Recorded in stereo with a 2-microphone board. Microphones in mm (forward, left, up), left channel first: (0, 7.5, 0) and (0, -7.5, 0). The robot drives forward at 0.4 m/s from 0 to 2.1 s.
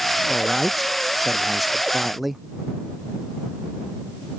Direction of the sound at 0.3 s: 15° right (ahead or behind).